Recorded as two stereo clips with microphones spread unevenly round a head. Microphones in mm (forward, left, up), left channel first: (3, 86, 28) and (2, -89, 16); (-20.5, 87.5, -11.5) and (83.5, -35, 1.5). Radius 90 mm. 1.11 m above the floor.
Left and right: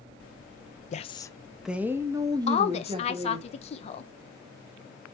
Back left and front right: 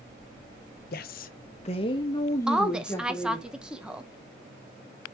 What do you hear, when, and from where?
0.9 s a woman speaking: 135° left, 0.7 m; by 3.5 s 145° right, 2.5 m
2.5 s a woman speaking: 40° left, 1.0 m